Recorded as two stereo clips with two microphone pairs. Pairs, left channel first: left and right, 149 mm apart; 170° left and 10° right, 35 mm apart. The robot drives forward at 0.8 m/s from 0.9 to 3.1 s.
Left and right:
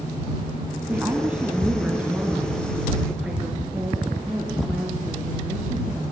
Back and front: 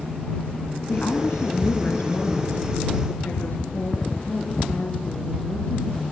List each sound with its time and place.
0.9 s a woman speaking: 170° right, 2.5 m; by 6.1 s 175° right, 4 m